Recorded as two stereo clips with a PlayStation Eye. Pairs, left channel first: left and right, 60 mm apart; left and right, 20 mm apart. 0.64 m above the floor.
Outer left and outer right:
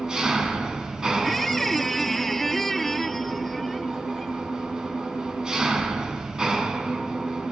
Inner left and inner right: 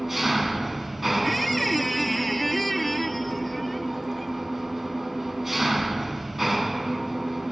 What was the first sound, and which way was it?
An engine running, 10° right (ahead or behind).